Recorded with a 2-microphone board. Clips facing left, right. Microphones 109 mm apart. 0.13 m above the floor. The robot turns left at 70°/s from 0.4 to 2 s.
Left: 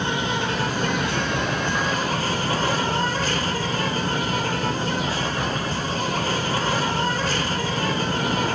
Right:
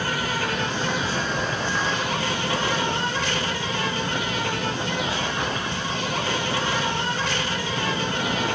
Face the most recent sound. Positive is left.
turn(degrees=45)